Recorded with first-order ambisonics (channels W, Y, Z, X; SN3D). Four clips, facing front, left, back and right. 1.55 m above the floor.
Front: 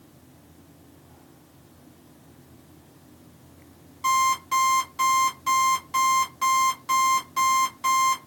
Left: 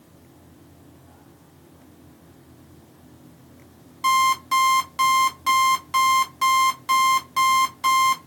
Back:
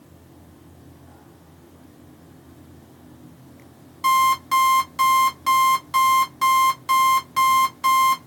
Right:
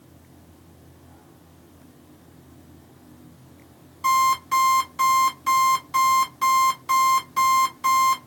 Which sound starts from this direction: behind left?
An alarm clock, at 4.0 s.